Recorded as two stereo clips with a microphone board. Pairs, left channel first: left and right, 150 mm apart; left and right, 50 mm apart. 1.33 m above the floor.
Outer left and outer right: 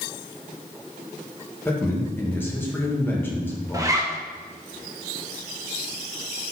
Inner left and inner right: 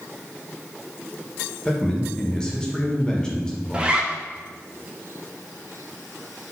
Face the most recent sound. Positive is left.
turn(degrees=-20)  # may be behind; listen again after turning